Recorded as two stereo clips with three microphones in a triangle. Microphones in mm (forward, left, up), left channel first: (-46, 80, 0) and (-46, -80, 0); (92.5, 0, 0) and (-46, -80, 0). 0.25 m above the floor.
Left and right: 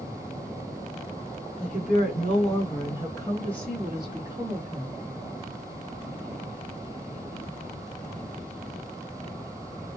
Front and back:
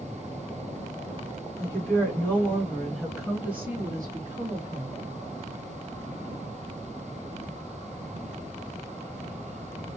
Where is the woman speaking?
95° left, 1.9 m; by 5.0 s 125° right, 1.5 m.